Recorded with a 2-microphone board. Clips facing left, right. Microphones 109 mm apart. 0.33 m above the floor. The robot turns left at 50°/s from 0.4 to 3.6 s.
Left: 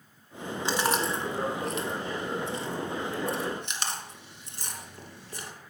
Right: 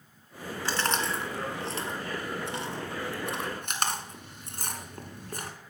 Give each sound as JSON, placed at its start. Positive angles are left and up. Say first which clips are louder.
{"t": 0.7, "sound": "chewing", "louder": "left 2 dB", "side_deg": 20, "distance_m": 1.6}